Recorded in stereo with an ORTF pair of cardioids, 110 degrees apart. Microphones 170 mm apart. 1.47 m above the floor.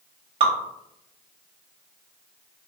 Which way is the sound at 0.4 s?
35° right.